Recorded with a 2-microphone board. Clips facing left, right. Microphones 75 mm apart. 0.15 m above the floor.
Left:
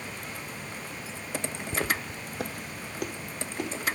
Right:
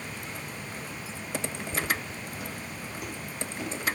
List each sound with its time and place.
1.7 s footsteps: 75° left (ahead or behind), 0.5 m; by 3.7 s 55° left (ahead or behind), 2 m